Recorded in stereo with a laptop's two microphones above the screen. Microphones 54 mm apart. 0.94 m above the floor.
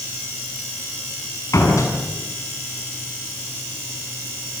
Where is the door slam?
75° left (ahead or behind), 6 m.